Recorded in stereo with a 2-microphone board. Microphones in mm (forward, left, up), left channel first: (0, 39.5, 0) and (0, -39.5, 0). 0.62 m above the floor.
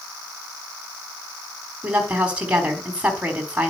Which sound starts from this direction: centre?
A woman speaking, at 1.8 s.